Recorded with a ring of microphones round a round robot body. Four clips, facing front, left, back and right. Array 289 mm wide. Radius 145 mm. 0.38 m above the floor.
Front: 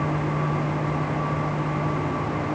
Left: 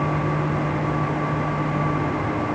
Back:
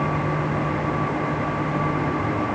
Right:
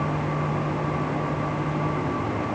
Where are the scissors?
No scissors in this recording.